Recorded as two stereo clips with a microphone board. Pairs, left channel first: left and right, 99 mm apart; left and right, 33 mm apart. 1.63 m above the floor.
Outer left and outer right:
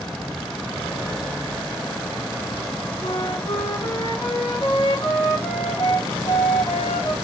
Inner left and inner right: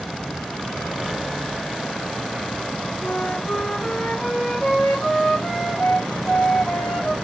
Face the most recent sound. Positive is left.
turn(degrees=40)  # may be behind; listen again after turning